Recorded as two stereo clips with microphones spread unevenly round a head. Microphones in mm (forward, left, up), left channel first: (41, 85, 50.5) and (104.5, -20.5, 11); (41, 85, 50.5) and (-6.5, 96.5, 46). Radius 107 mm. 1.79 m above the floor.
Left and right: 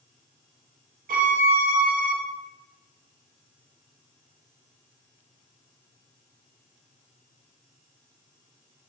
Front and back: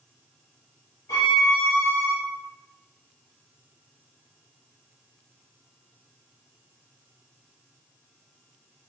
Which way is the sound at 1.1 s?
55° right.